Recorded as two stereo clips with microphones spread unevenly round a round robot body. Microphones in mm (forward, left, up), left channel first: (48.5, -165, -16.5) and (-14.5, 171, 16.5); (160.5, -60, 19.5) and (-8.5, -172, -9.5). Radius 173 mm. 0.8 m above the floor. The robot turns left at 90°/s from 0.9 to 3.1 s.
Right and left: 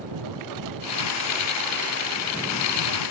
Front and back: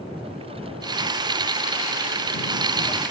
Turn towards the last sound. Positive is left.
turn(degrees=-60)